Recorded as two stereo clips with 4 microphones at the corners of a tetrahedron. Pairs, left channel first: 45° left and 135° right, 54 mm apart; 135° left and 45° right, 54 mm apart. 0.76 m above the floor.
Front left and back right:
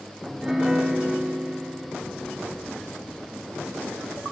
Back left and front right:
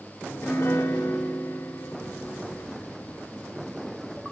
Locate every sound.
0.2 s a piano: 145° left, 2.0 m